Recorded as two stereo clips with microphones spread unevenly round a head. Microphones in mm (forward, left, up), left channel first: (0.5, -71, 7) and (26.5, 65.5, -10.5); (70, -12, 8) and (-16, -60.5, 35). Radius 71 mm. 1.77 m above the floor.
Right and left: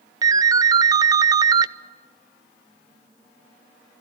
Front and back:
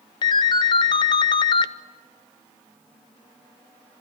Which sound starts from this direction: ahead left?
A ringtone, at 0.2 s.